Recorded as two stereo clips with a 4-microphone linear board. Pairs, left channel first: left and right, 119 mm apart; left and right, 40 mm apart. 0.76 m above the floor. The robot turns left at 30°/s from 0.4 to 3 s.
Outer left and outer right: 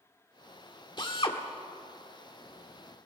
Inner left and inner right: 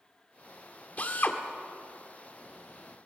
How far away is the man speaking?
I don't hear a man speaking.